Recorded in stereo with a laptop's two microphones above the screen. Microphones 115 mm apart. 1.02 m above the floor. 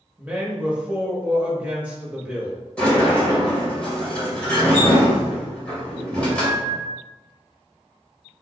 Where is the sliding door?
10° left (ahead or behind), 1.9 m.